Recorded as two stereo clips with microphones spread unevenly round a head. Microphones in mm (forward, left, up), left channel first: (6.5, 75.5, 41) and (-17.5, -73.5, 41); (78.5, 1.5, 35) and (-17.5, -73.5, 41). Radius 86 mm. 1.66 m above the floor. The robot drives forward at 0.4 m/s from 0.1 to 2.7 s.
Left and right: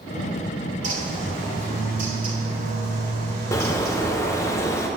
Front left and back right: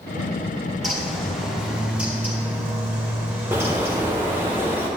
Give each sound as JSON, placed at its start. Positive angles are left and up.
{"t": 0.8, "sound": "a bird", "azimuth_deg": -55, "distance_m": 2.5}
{"t": 3.5, "sound": "a bird", "azimuth_deg": 150, "distance_m": 0.6}